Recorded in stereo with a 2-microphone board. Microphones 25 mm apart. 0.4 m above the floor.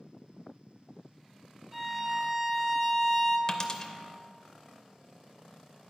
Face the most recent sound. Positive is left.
turn(degrees=30)  # may be behind; listen again after turning